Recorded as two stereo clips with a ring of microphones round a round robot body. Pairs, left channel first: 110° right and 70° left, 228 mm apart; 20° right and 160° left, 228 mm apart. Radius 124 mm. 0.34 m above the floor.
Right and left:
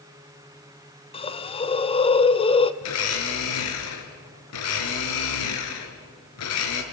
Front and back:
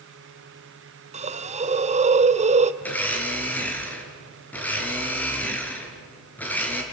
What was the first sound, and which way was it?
A hiss, 165° right.